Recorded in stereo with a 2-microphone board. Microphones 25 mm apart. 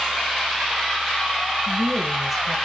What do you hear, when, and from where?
1.7 s a woman speaking: 5° right (ahead or behind), 1.3 m